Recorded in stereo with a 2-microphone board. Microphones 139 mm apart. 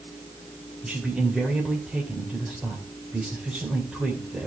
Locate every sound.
0.8 s a man speaking: centre (ahead or behind), 3 m